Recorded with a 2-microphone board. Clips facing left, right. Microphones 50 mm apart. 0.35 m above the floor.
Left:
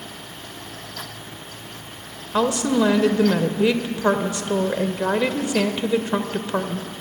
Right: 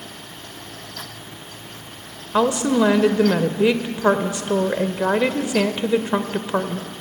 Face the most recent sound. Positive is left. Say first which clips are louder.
# right 2 dB
turn(degrees=-15)  # may be behind; listen again after turning